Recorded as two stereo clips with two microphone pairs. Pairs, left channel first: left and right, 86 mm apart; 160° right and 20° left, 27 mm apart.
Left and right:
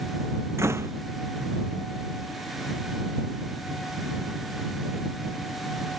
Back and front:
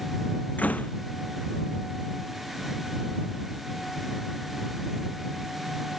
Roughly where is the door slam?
Behind right.